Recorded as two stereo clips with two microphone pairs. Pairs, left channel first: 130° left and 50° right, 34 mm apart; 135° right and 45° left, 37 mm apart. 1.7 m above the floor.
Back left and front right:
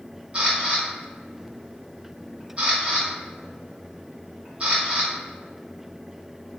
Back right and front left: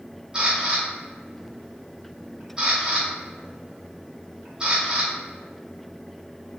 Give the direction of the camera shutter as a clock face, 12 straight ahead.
12 o'clock.